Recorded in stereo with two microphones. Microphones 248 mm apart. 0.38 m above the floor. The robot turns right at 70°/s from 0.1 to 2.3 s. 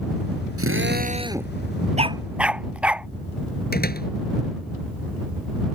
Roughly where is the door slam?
Left.